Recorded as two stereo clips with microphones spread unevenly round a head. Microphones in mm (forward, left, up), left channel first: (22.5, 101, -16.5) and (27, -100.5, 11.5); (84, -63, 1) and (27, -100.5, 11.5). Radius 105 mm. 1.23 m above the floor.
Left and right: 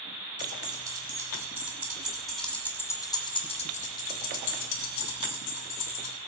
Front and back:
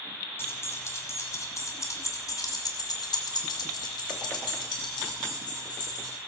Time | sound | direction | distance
0.4 | keys jangling | 20° right | 4.5 m